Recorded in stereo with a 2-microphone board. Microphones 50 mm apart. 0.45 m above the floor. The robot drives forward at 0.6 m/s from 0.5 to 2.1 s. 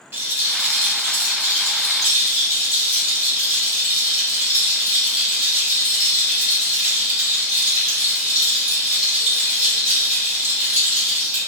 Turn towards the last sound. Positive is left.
turn(degrees=-30)  # may be behind; listen again after turning